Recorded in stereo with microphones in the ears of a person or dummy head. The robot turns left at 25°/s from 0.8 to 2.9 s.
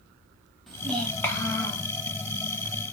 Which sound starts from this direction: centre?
A child speaking, at 0.7 s.